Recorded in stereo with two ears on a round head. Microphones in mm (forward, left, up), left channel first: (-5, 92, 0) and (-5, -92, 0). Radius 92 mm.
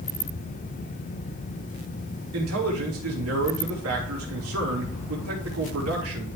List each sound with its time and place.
2.3 s a man speaking: 80° right, 4 m